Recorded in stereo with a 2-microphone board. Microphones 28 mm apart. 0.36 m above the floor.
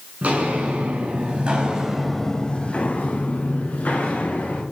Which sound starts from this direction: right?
Footsteps, at 0.2 s.